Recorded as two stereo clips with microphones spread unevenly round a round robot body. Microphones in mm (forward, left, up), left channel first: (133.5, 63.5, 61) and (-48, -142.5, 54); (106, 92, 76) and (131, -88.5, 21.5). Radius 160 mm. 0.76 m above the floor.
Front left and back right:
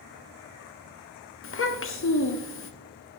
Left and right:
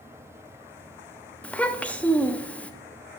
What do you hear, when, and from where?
1.4 s a child speaking: 5° left, 1.0 m